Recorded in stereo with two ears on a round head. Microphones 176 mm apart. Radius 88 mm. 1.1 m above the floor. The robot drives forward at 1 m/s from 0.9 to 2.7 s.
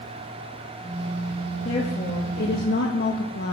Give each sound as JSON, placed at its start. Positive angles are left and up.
{"t": 1.6, "sound": "a woman speaking", "side_deg": 35, "distance_m": 2.0}